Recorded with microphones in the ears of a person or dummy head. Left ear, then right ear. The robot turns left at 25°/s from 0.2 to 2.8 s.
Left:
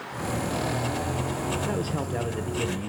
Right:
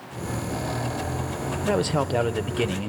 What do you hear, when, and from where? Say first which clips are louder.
1.6 s a man speaking: right 6 dB; 40° right (ahead or behind), 0.5 m; by 2.9 s 30° right (ahead or behind), 0.5 m